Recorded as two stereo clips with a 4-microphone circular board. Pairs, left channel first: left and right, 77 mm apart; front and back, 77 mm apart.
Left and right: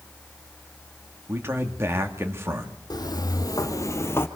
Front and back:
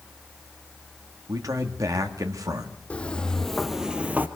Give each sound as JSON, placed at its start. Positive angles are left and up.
{"t": 1.3, "sound": "a man speaking", "azimuth_deg": -145, "distance_m": 1.7}
{"t": 2.9, "sound": "footsteps", "azimuth_deg": 70, "distance_m": 1.7}